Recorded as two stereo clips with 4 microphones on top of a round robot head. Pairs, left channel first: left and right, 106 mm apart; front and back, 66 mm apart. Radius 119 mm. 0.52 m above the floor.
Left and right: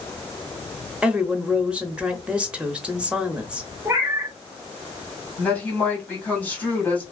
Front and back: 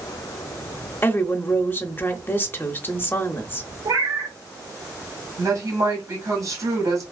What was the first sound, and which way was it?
A woman speaking, 20° right.